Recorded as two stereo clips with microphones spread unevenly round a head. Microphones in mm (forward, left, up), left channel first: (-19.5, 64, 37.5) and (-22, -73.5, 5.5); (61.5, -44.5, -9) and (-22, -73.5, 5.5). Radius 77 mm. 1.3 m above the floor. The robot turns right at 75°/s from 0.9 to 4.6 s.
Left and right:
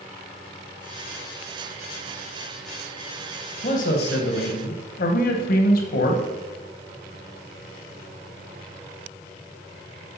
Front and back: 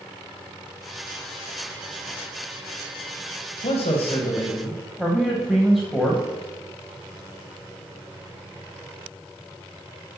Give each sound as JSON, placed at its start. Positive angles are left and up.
{"t": 3.6, "sound": "a man speaking", "azimuth_deg": 35, "distance_m": 1.1}